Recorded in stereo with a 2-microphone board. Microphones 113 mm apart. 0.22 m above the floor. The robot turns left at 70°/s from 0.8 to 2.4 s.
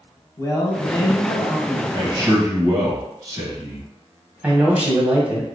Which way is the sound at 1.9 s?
90° right.